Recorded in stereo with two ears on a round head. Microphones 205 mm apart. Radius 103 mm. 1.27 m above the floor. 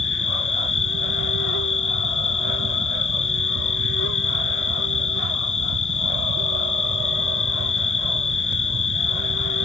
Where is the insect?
60° left (ahead or behind).